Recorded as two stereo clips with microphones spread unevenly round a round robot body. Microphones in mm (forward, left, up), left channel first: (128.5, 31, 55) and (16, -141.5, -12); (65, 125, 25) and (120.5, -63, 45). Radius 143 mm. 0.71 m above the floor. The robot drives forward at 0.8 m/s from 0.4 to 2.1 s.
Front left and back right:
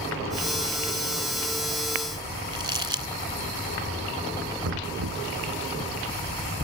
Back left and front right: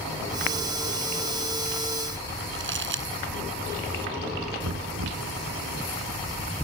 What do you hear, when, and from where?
2.5 s crumpling: 55° right
4.6 s knocking: 110° right